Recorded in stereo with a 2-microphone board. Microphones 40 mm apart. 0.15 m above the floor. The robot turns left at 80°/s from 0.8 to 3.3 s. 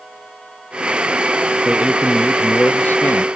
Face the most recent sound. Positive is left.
turn(degrees=95)